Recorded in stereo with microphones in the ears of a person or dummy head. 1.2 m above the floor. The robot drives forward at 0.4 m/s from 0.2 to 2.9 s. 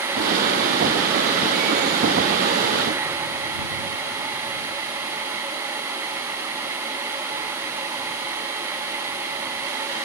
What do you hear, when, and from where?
Only background noise.